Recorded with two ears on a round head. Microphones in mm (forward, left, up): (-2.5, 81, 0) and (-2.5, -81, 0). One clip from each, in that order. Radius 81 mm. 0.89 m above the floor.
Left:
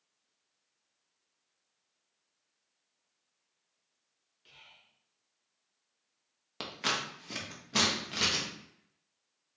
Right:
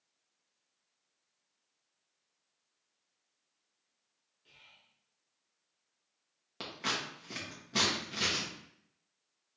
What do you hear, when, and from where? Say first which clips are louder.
4.5 s whispering: left 3 dB; 35° left (ahead or behind), 0.6 m
6.6 s scissors: left 3 dB; 20° left (ahead or behind), 0.9 m